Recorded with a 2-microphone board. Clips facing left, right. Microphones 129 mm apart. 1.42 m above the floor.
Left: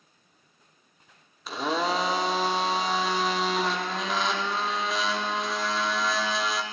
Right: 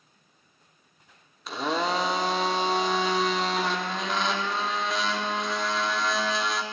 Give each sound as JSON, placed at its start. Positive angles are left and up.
{"t": 1.5, "sound": "a blender", "side_deg": 0, "distance_m": 0.6}